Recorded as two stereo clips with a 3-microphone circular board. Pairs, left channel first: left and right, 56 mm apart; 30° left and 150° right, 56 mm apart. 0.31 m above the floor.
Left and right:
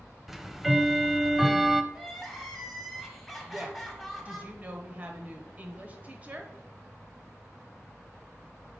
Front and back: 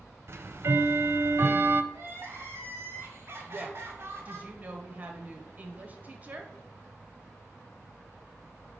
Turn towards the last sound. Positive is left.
turn(degrees=-125)